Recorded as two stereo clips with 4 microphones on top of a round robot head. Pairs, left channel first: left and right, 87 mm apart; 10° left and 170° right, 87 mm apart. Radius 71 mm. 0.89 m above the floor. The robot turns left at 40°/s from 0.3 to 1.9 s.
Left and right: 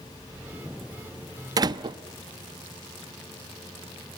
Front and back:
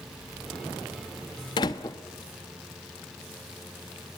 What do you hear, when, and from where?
1.6 s a door slam: 40° right, 0.7 m; by 2.0 s 55° right, 0.7 m